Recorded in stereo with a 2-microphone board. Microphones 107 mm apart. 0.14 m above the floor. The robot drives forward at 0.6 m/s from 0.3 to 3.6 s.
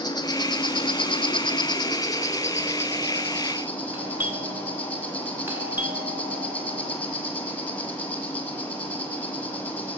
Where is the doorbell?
20° right (ahead or behind), 1.7 m.